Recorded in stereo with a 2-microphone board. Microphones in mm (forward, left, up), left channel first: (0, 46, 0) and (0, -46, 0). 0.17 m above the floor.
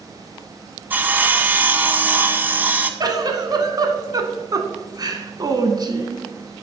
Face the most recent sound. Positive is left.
turn(degrees=-40)  # may be behind; listen again after turning